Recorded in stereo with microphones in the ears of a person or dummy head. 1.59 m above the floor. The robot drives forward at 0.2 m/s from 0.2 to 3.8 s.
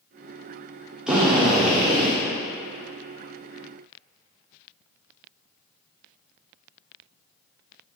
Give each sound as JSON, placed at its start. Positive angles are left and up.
{"t": 1.1, "sound": "a drill", "side_deg": -10, "distance_m": 0.9}